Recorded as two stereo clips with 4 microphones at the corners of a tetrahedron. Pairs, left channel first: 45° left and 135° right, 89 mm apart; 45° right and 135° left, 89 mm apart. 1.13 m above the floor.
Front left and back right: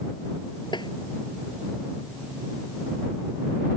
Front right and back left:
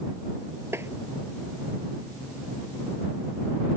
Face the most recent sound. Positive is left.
turn(degrees=75)